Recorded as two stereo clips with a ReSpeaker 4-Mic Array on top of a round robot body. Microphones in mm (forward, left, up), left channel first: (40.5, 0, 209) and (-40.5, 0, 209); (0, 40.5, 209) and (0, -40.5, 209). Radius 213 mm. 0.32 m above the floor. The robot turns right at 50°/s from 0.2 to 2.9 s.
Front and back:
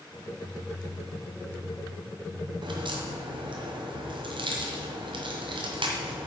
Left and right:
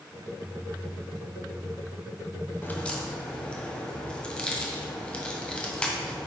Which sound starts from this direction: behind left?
A crack, at 2.6 s.